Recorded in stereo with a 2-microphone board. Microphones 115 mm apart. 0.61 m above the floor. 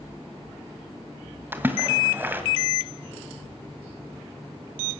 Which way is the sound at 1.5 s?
15° right (ahead or behind).